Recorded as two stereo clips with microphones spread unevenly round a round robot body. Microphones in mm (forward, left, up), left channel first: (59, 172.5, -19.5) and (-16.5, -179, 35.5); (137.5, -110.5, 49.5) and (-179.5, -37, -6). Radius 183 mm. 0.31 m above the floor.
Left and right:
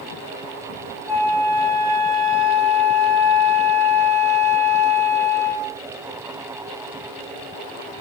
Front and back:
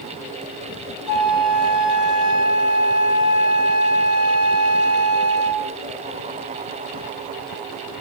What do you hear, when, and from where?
1.1 s a flute: 10° right, 2 m